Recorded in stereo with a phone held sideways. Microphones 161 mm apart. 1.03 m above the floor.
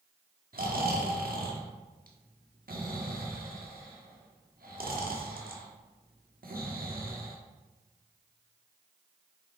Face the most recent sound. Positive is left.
turn(degrees=-65)  # may be behind; listen again after turning